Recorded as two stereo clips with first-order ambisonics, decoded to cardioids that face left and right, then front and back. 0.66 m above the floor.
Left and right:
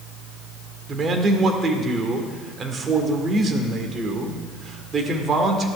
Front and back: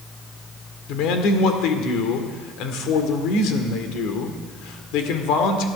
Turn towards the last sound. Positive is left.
turn(degrees=-25)